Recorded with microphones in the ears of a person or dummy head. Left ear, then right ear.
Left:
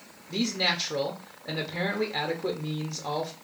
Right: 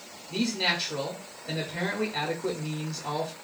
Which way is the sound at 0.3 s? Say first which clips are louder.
Even; 35° left (ahead or behind).